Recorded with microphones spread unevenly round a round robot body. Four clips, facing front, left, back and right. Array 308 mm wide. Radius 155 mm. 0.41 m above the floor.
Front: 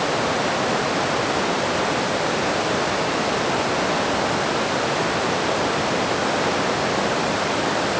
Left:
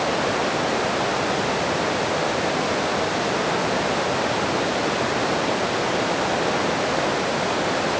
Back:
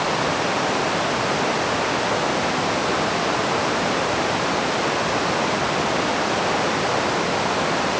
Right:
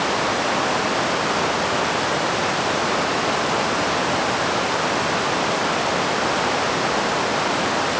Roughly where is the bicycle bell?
I don't hear a bicycle bell.